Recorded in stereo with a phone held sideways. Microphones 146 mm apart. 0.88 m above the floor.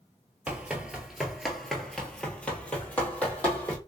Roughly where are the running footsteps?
Centre.